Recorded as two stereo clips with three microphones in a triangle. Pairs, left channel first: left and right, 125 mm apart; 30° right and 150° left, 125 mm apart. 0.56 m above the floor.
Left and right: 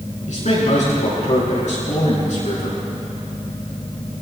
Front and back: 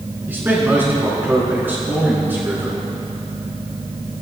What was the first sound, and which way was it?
A man speaking, 75° left.